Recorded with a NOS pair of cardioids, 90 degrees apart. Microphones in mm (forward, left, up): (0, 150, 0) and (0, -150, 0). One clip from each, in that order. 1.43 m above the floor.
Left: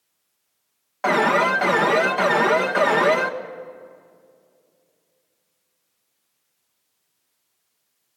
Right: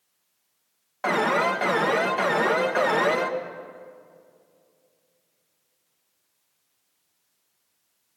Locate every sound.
1.0 s an alarm: 15° left, 1.8 m